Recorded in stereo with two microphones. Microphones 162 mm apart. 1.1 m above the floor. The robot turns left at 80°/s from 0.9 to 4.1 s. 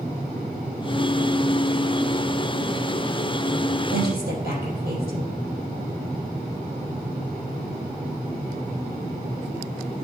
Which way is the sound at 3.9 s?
65° right (ahead or behind).